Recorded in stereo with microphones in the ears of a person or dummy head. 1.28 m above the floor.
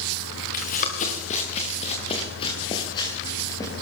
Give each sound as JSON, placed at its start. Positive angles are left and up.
{"t": 0.5, "sound": "running footsteps", "side_deg": 45, "distance_m": 5.0}